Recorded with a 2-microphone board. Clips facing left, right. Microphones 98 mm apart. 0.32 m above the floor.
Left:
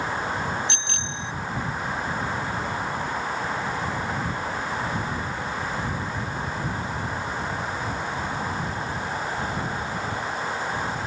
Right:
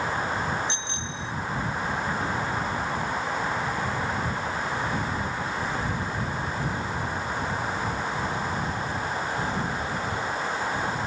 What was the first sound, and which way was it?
A bicycle bell, 75° left (ahead or behind).